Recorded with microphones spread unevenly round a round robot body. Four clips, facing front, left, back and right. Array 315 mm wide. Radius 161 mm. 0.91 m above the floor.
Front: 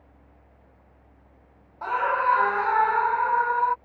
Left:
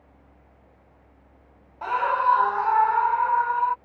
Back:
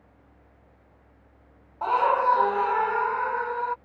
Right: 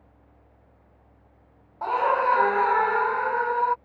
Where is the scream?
155° right; by 3.8 s 100° right.